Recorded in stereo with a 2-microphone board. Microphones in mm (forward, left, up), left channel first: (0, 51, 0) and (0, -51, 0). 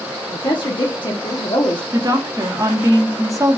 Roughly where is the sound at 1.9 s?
Right.